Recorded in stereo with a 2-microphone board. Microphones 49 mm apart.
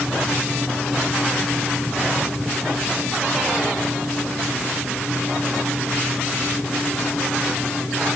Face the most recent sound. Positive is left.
No sound to turn to.